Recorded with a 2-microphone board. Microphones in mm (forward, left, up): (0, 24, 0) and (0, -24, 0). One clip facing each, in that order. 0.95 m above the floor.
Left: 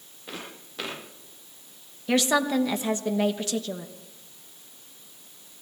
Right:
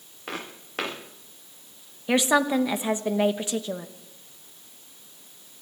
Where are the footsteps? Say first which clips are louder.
Right 4 dB; 60° right (ahead or behind), 5.5 m.